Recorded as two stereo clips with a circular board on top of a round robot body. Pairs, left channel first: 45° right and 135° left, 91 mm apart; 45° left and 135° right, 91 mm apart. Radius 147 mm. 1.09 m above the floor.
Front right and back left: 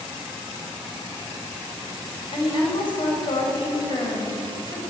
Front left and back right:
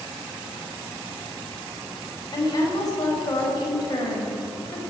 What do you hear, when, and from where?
2.3 s a woman speaking: 5° right, 5.5 m